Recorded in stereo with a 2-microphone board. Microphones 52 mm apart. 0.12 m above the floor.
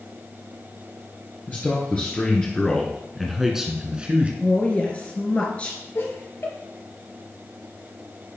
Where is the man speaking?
35° left (ahead or behind), 1.9 m; by 4.3 s 25° right (ahead or behind), 1.3 m.